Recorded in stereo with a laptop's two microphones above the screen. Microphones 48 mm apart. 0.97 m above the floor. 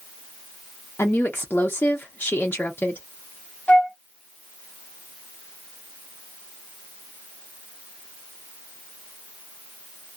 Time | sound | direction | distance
1.0 | a woman speaking | 45° left (ahead or behind) | 0.8 m
3.7 | a flute | 35° left (ahead or behind) | 0.8 m